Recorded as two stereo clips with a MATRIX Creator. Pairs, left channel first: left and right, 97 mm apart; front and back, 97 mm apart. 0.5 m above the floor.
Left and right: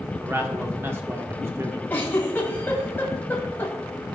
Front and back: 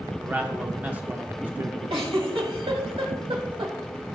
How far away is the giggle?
About 1.8 m.